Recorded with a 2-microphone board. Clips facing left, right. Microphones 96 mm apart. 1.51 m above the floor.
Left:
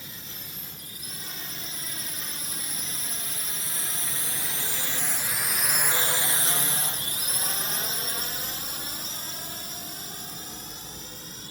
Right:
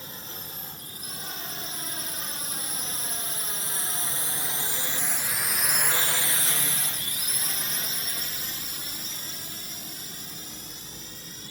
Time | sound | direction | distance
0.0 | a drone | 35° right (ahead or behind) | ?